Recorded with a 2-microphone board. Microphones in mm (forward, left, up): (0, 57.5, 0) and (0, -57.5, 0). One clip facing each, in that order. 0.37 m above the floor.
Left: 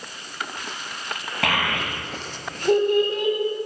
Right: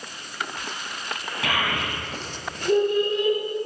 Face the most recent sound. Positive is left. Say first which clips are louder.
# left 2 dB
turn(degrees=65)  # may be behind; listen again after turning